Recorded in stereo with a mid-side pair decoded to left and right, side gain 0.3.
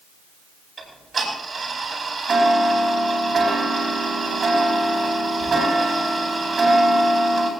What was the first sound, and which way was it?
Ticking, 60° right.